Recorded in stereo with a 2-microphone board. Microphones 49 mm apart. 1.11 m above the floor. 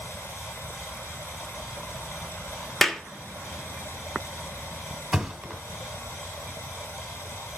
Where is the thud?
10° right (ahead or behind), 1.4 m.